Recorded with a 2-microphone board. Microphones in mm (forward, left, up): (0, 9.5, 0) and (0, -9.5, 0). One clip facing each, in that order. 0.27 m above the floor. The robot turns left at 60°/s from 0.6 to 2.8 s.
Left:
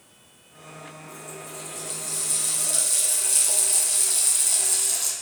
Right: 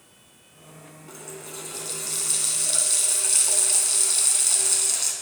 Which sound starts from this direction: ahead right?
A running tap, at 1.1 s.